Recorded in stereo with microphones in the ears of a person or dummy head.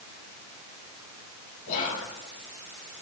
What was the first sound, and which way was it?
Whispering, 45° left (ahead or behind).